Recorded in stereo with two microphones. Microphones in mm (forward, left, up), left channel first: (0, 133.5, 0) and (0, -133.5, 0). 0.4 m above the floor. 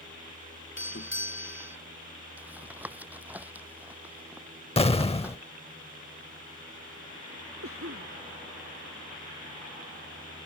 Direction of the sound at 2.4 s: 5° right (ahead or behind).